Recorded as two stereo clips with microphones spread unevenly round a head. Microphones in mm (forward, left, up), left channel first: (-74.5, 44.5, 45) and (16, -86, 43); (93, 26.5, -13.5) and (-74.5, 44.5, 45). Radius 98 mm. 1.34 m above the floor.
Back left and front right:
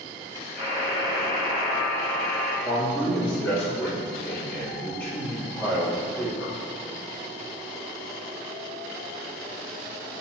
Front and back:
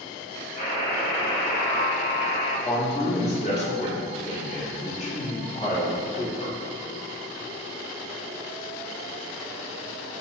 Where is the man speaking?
45° left, 1.4 m.